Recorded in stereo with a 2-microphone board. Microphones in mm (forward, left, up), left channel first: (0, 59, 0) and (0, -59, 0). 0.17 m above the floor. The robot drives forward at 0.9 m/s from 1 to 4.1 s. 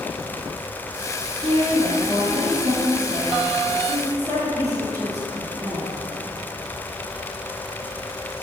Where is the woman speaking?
50° right (ahead or behind), 3 m; by 6.0 s 30° right (ahead or behind), 4.5 m.